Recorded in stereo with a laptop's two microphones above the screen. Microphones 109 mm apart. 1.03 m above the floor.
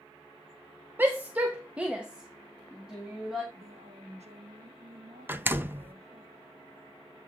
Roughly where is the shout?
Centre.